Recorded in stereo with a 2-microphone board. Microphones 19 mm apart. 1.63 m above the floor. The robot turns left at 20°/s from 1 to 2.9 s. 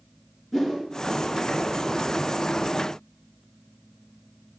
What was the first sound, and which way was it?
A whoosh, 30° left (ahead or behind).